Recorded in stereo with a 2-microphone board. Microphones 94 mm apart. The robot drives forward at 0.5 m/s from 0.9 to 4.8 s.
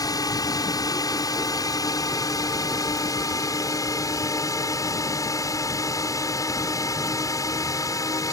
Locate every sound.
0.0 s a drone: 40° left (ahead or behind); by 8.3 s 35° left (ahead or behind)